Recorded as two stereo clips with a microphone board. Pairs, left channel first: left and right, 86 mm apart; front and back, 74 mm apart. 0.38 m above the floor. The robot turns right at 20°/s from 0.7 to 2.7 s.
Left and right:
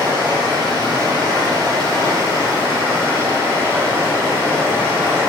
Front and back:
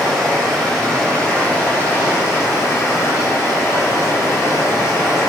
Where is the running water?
80° right, 1.8 m; by 5.3 s 40° right, 1.8 m.